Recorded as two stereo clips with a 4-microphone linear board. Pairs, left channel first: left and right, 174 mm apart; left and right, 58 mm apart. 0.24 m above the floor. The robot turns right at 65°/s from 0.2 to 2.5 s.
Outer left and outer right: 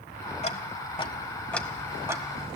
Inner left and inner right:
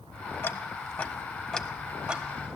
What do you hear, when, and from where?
0.4 s ticking: 40° left (ahead or behind), 0.7 m; by 2.2 s 20° right (ahead or behind), 0.7 m